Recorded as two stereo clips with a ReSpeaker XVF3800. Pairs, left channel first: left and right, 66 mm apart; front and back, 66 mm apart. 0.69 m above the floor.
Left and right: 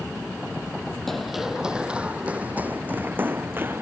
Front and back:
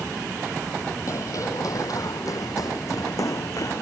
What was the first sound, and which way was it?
Running footsteps, 5° left.